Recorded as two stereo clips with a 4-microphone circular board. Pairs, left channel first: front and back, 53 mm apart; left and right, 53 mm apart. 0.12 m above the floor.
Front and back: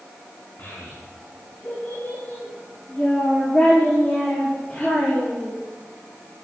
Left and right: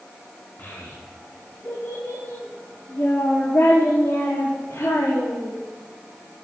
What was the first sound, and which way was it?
A child speaking, 40° left.